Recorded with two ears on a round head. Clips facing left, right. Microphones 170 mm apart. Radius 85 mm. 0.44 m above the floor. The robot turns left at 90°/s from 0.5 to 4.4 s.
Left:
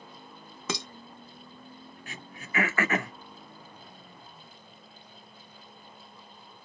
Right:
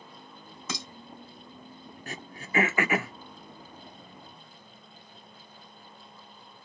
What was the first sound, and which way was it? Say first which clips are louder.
Dishes clattering: left 4 dB; 50° left (ahead or behind).